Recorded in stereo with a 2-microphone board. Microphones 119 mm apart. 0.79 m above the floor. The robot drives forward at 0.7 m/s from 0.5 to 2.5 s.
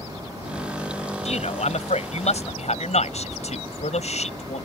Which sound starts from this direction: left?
A man speaking, at 1.2 s.